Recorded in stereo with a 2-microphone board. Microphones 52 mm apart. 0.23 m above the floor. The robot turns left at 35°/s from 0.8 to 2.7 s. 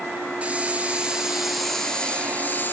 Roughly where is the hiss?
Behind right.